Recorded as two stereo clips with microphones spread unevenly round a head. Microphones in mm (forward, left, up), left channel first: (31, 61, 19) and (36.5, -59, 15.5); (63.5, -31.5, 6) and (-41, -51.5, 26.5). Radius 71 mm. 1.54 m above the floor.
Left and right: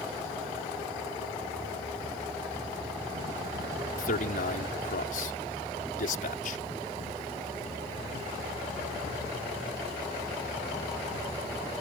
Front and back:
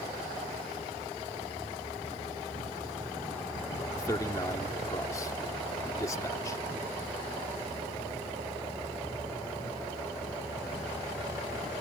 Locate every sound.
4.0 s a man speaking: 80° left